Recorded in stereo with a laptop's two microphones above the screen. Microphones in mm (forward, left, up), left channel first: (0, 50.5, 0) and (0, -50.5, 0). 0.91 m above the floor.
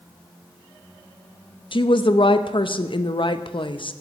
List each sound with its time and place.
1.7 s a woman speaking: 60° left (ahead or behind), 0.6 m